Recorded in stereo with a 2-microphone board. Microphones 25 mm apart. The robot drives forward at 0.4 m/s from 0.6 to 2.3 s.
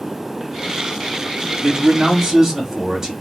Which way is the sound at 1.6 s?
25° right (ahead or behind).